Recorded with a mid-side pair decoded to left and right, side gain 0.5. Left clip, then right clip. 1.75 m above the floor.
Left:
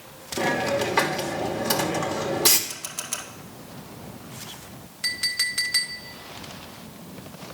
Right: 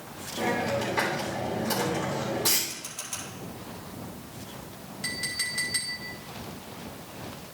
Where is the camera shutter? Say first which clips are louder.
Left 4 dB; 50° left, 1.9 m.